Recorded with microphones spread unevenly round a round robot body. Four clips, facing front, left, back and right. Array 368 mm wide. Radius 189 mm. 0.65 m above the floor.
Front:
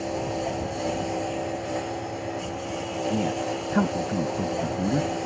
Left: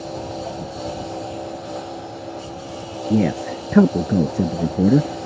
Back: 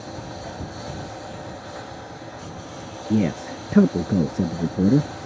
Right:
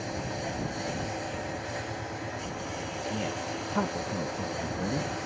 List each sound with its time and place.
0.0 s a lawn mower: 30° left
3.1 s a man speaking: 115° left